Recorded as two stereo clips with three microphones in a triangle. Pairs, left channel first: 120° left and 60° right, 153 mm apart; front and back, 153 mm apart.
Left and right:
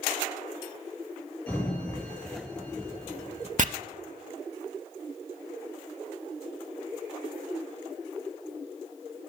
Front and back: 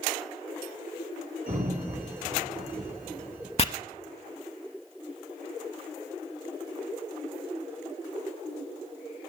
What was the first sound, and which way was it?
A sliding door, 160° right.